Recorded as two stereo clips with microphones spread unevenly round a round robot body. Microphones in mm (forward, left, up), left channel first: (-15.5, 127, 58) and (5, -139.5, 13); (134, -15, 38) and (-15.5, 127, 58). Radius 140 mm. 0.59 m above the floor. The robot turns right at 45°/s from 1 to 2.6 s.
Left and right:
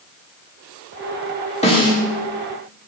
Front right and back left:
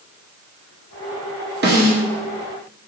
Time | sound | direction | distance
1.6 | a snare drum | 165° left | 1.8 m